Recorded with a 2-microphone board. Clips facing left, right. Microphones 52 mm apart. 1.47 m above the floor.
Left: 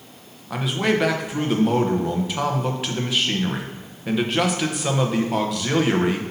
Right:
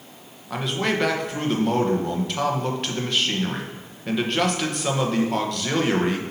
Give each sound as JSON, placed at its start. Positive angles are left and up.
{"t": 0.5, "sound": "a man speaking", "side_deg": 5, "distance_m": 0.9}